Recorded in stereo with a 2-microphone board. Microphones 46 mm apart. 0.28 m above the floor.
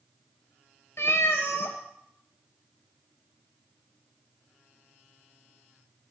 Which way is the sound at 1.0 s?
75° left (ahead or behind).